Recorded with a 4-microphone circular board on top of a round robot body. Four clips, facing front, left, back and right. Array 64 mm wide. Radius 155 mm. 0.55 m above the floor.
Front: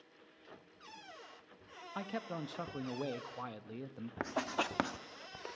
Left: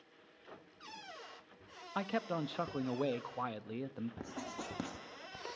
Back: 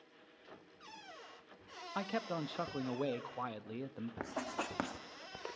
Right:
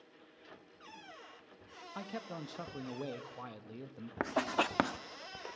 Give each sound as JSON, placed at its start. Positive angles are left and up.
{"t": 1.9, "sound": "a man speaking", "azimuth_deg": 115, "distance_m": 0.7}
{"t": 4.2, "sound": "writing", "azimuth_deg": -70, "distance_m": 0.7}